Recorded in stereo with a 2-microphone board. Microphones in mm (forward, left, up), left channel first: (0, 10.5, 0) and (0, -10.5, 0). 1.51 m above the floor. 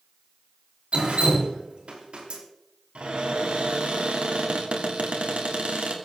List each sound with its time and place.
0.9 s dripping: 70° right (ahead or behind), 4 m
3.0 s a cupboard door: 80° right, 3 m